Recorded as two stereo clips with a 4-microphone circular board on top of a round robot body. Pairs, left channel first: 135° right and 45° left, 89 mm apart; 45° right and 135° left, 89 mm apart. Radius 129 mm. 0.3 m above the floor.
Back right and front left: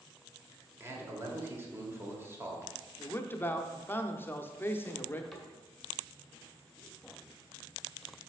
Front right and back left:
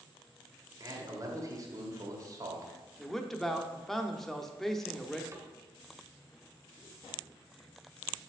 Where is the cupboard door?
140° left, 1.5 m.